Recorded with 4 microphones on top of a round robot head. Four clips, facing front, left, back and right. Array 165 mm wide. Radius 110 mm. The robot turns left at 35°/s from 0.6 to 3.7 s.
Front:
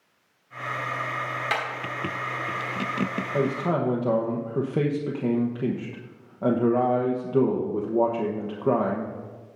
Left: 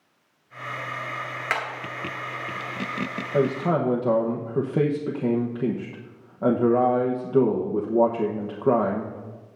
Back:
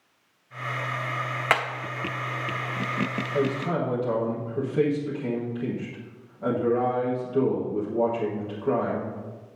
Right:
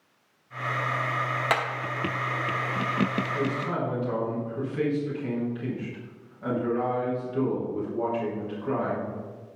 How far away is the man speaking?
About 1.3 m.